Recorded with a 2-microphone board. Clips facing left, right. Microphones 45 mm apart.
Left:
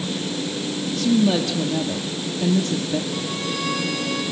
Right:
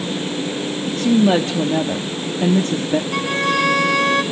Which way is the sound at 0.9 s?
40° right (ahead or behind).